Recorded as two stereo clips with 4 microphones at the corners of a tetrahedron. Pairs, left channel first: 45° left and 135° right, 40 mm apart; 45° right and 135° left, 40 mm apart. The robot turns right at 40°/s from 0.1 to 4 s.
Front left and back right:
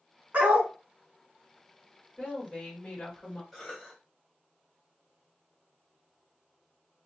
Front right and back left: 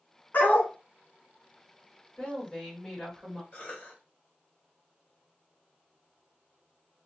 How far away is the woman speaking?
About 1.6 m.